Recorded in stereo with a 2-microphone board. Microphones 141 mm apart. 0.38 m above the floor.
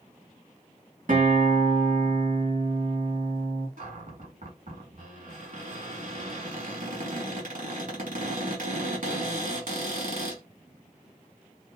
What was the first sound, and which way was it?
A guitar, 65° right (ahead or behind).